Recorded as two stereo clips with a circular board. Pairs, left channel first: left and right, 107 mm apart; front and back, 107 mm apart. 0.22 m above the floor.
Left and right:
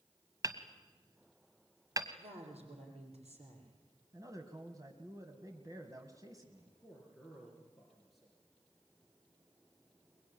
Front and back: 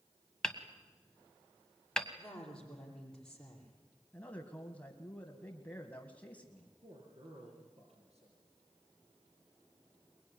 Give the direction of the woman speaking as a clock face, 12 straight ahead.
3 o'clock.